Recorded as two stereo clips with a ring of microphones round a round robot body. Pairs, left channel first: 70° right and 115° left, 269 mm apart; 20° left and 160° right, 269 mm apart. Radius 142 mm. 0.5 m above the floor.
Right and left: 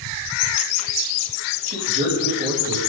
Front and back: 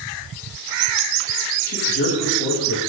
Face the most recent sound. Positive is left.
turn(degrees=50)